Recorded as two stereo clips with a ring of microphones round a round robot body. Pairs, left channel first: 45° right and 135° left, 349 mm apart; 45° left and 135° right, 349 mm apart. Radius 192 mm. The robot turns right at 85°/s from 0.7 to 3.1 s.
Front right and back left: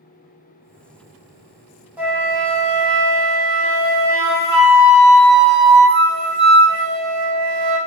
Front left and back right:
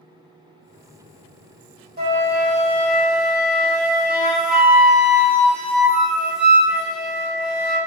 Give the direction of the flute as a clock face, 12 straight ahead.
5 o'clock.